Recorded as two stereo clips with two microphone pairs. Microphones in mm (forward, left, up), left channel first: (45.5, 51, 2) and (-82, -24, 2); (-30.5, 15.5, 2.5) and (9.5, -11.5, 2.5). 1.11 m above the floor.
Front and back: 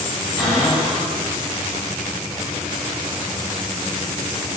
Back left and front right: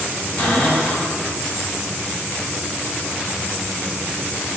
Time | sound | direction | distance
0.4 | a cupboard door | 125° left | 1.2 m